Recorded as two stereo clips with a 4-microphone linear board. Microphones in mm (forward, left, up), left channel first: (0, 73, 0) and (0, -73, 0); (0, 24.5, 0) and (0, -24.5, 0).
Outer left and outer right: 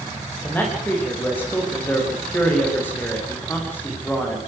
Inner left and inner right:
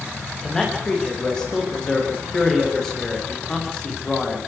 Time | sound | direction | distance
0.4 | a man speaking | 15° left (ahead or behind) | 9.5 m